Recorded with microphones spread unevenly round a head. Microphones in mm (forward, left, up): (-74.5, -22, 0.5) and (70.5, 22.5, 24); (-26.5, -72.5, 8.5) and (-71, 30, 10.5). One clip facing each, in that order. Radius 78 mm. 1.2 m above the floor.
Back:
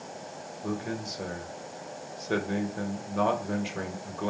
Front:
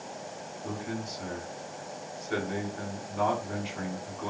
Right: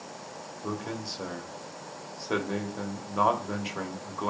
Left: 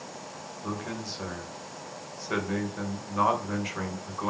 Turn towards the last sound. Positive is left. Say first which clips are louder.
# back 3 dB, even
turn(degrees=-135)